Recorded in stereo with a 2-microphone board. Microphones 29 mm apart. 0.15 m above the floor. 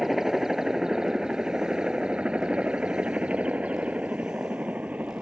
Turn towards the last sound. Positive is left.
turn(degrees=-65)  # may be behind; listen again after turning